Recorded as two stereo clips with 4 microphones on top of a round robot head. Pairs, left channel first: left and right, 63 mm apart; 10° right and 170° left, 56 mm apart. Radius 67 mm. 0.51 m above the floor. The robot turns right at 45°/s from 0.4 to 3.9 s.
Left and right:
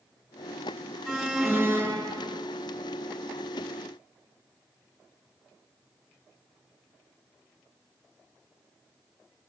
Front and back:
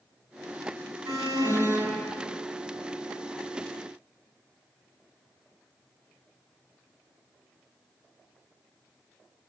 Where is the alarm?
175° left, 6 m; by 2.4 s 125° right, 6 m.